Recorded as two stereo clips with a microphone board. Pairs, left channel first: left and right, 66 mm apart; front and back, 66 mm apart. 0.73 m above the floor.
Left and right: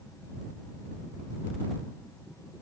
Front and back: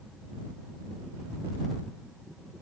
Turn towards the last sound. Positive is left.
No sound to turn to.